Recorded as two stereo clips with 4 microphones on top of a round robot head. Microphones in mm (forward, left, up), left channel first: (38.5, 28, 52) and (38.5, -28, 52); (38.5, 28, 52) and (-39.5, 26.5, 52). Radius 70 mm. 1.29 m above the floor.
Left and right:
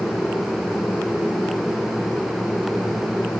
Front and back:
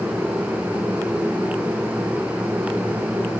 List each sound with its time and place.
Only background noise.